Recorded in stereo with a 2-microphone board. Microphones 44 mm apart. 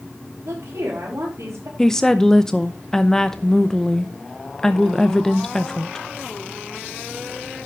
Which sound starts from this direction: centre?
A woman speaking, at 1.8 s.